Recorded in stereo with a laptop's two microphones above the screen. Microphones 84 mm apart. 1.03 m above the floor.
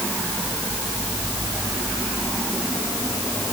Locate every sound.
Only background noise.